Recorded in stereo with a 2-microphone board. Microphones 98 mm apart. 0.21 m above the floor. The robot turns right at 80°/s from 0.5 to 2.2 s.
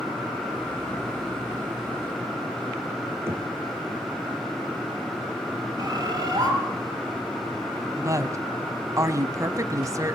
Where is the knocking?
30° right (ahead or behind), 2.5 m.